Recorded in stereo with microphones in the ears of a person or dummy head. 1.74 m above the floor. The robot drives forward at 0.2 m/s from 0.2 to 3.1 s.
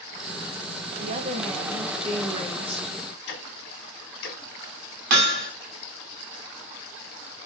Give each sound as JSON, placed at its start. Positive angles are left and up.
{"t": 1.0, "sound": "a woman speaking", "side_deg": -45, "distance_m": 0.8}
{"t": 3.3, "sound": "ticking", "side_deg": 55, "distance_m": 1.4}
{"t": 5.1, "sound": "hammering", "side_deg": -55, "distance_m": 1.2}